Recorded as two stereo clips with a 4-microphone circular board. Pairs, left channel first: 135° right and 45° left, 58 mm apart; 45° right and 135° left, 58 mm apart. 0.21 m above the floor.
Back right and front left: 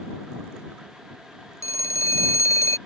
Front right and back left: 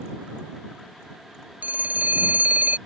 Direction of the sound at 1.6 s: 165° right.